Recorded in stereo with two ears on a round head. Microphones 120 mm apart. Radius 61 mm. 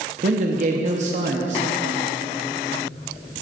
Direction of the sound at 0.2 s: 55° right (ahead or behind).